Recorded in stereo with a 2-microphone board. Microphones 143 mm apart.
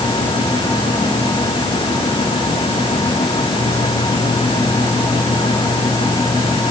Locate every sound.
Only background noise.